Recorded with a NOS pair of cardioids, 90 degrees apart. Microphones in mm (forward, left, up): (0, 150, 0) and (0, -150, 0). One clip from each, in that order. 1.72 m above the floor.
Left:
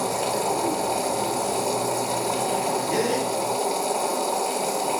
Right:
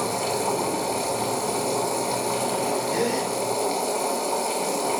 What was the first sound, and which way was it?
A machine running, 10° left.